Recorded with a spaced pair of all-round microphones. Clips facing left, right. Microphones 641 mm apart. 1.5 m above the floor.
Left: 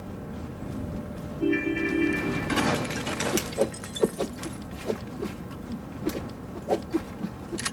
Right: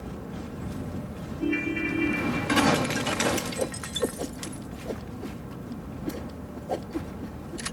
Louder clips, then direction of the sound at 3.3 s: Left 3 dB; 85° left.